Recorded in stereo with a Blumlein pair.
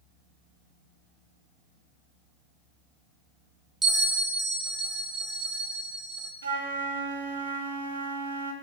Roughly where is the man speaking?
I don't hear a man speaking.